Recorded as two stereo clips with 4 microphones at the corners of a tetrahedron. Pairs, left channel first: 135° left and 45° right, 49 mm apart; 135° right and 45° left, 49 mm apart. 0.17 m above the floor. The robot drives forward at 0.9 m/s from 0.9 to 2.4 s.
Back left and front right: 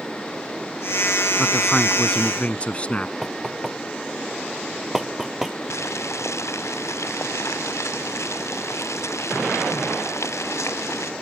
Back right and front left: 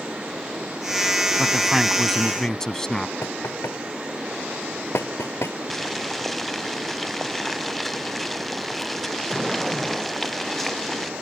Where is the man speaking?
35° left; by 3.1 s 160° left.